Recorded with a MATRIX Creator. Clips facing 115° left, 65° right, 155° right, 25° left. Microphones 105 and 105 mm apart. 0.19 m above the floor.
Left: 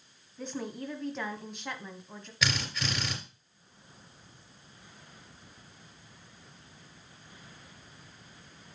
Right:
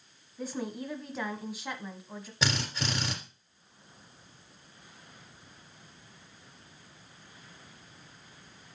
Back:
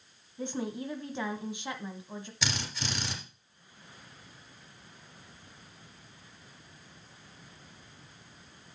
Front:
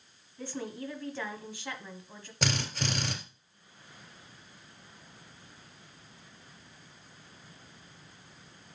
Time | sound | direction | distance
0.4 | a woman speaking | 140° right | 1.1 m
2.4 | a drill | 10° right | 3 m